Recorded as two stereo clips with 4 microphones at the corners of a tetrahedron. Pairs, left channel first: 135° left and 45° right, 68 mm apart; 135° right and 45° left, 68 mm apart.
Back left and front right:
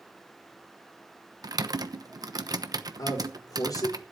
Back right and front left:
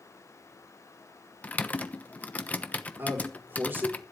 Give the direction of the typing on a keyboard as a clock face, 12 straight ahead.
2 o'clock.